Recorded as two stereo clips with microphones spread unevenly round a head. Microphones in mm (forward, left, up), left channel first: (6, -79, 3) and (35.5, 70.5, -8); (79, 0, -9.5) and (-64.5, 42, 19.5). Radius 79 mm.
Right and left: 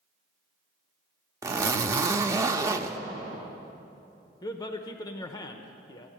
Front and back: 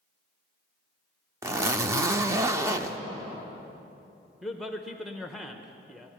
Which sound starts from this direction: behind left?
A zipper, at 1.4 s.